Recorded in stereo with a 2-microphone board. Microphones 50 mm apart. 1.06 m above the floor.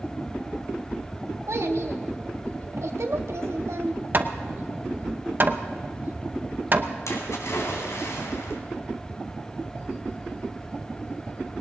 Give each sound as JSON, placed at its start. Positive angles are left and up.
{"t": 1.5, "sound": "a child speaking", "side_deg": -70, "distance_m": 1.5}
{"t": 4.1, "sound": "hammering", "side_deg": -45, "distance_m": 0.8}
{"t": 7.1, "sound": "a splash", "side_deg": 75, "distance_m": 3.0}